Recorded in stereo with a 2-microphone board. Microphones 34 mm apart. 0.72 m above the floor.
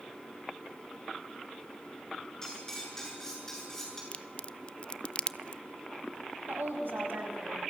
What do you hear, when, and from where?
2.4 s cutlery clinking: 15° left (ahead or behind), 7 m
4.1 s a crack: 35° left (ahead or behind), 0.5 m
6.5 s a woman speaking: 80° right, 5 m